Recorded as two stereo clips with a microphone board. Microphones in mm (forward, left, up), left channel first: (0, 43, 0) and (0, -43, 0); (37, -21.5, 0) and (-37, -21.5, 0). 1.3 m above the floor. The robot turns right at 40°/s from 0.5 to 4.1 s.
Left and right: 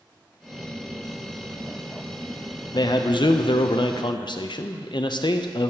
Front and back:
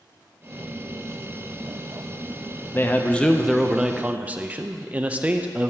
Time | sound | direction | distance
2.7 | a man speaking | 60° left | 0.5 m